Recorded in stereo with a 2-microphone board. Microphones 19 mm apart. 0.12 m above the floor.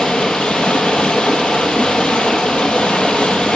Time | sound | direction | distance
0.0 | running water | 70° left (ahead or behind) | 0.8 m